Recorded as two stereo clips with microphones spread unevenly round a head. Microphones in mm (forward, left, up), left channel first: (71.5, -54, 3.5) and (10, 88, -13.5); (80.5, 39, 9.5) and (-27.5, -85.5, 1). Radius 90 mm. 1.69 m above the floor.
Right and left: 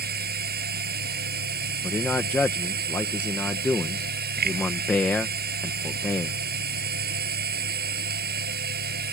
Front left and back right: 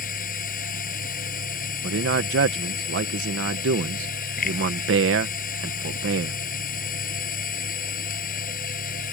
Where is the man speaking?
145° right.